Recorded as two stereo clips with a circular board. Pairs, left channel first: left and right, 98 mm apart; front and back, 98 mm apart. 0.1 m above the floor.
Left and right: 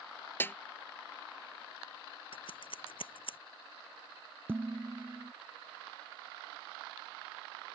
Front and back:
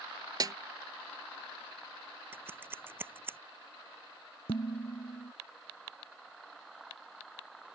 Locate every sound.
0.4 s a snare drum: 150° left
2.3 s scissors: 110° left
4.5 s dishes clattering: 20° right